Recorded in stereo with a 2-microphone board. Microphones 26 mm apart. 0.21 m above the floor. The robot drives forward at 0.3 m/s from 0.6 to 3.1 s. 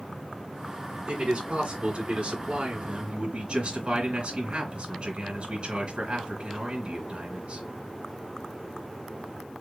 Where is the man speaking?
50° right (ahead or behind), 2.5 m; by 7.6 s 55° right (ahead or behind), 2.5 m.